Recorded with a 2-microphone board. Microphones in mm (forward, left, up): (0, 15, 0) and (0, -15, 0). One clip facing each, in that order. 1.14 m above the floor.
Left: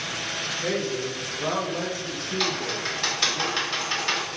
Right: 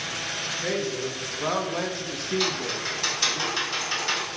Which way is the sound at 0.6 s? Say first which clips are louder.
Left 1 dB; 10° left (ahead or behind).